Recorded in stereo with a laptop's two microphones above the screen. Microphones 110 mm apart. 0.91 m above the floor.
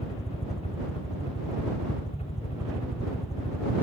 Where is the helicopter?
70° left (ahead or behind).